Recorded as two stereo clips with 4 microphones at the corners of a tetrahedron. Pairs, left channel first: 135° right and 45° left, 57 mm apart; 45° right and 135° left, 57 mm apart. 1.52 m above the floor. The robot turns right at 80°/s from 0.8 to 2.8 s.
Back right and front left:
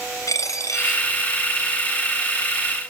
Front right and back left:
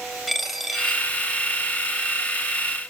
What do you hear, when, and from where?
0.3 s a dropped coin: 135° right, 3 m; by 1.3 s 95° right, 3 m